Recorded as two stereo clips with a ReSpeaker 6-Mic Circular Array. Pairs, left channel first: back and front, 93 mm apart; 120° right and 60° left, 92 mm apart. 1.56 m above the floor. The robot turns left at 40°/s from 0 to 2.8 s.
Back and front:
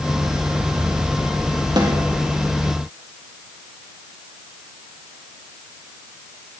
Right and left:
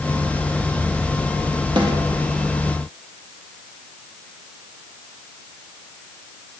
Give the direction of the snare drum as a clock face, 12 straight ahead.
11 o'clock.